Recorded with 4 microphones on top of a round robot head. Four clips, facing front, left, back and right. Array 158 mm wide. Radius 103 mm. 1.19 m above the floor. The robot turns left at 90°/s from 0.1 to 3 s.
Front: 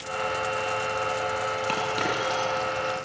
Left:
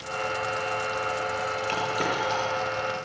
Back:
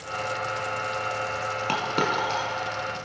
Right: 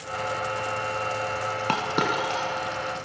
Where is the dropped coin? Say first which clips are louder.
Right 4 dB, back 5 dB; 95° right, 5.5 m; by 2.5 s 170° right, 5.5 m.